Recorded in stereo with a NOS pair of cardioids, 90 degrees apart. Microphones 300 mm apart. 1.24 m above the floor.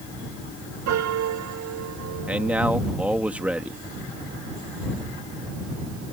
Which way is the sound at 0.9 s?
70° right.